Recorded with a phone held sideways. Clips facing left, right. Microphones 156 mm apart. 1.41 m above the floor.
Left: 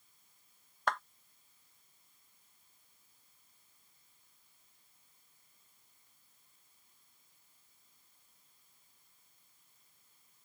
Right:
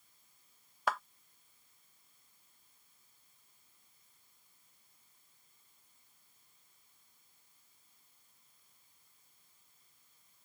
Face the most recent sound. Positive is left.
turn(degrees=-5)  # may be behind; listen again after turning